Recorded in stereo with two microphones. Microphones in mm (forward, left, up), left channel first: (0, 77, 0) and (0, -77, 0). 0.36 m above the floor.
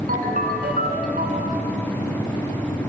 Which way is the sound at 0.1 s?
70° right (ahead or behind).